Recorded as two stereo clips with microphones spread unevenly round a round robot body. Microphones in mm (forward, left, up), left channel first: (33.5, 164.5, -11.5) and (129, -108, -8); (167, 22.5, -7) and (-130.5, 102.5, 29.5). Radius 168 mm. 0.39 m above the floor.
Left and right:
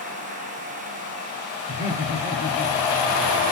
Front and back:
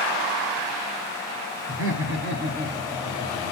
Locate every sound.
1.7 s laughter: 165° left, 1.6 m; by 3.5 s 85° left, 1.5 m